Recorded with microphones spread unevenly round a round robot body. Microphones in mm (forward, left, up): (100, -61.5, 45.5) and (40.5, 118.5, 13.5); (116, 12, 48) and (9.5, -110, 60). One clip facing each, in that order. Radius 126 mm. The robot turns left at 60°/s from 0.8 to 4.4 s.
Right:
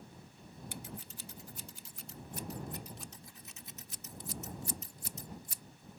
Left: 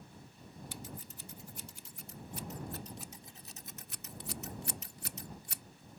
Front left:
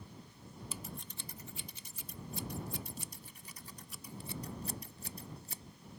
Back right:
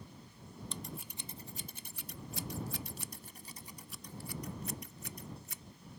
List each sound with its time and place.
0.7 s scissors: 35° right; by 5.6 s 110° left